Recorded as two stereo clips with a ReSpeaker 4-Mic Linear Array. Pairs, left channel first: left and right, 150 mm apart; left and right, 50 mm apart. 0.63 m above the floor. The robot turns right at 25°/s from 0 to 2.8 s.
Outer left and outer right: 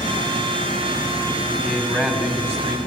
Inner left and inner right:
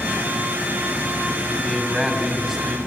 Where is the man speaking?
170° left, 2.5 m; by 2.8 s 155° right, 2.5 m.